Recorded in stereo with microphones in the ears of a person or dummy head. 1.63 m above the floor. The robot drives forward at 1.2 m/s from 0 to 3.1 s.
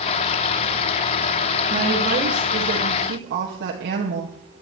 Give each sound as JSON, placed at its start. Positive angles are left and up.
{"t": 1.7, "sound": "a woman speaking", "side_deg": -40, "distance_m": 3.0}